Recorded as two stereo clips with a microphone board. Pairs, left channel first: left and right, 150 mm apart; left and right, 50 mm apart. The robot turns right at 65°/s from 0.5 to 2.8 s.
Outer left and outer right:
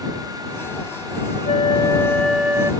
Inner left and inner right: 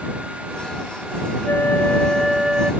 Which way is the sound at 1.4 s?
125° left.